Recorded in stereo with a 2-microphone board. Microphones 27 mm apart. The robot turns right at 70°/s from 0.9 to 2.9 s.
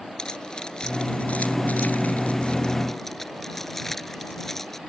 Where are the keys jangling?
30° left (ahead or behind); by 4.8 s 10° left (ahead or behind).